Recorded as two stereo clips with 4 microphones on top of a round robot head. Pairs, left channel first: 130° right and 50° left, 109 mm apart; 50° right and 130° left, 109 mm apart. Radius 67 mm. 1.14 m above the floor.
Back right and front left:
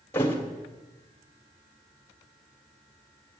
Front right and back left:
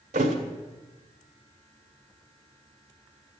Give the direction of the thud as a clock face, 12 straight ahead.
7 o'clock.